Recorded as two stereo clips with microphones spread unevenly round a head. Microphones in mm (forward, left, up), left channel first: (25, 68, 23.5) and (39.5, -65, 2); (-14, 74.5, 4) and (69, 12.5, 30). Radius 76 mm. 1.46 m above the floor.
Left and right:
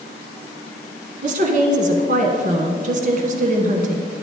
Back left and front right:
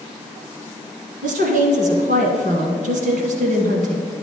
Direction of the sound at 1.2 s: 55° right.